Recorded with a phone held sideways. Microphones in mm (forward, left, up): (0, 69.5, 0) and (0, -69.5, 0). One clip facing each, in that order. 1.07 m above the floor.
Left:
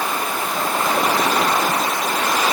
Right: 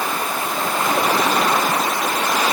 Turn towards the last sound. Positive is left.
No sound to turn to.